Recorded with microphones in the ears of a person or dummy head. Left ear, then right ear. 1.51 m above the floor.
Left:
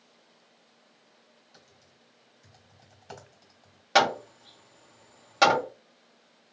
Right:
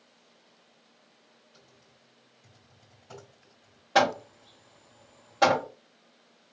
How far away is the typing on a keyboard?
About 3 m.